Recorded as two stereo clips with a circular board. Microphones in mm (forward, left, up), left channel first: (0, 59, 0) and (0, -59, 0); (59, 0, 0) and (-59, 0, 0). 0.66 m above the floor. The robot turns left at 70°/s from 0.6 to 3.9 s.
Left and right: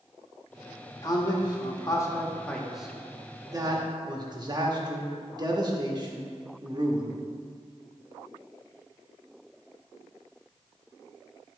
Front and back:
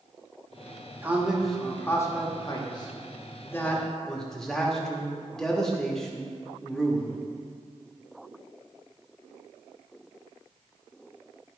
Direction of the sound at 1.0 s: 120° left.